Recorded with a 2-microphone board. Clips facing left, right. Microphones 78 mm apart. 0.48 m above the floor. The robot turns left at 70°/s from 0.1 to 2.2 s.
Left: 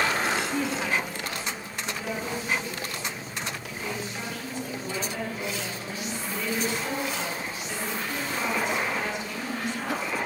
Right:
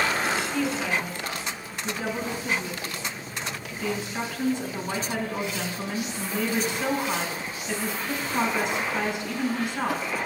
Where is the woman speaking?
30° left, 4.5 m; by 10.0 s 85° right, 4.5 m.